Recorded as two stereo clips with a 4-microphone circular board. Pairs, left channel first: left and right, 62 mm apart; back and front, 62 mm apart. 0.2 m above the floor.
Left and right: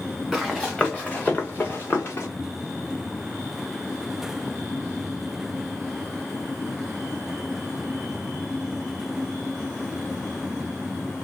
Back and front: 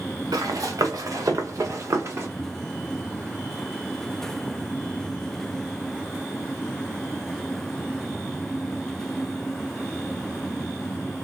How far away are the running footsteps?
About 1.4 m.